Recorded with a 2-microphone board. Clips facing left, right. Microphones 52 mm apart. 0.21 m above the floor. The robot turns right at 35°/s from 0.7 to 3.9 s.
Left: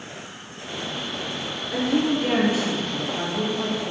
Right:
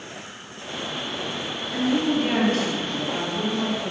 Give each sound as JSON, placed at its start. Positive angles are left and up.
{"t": 1.7, "sound": "a woman speaking", "azimuth_deg": 145, "distance_m": 3.5}